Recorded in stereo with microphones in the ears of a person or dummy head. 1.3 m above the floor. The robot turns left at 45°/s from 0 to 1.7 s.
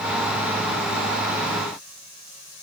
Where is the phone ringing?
No phone ringing in this recording.